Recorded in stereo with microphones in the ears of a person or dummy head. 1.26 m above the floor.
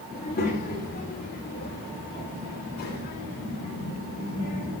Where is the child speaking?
40° left (ahead or behind), 1.8 m; by 4.7 s 45° left (ahead or behind), 5.5 m.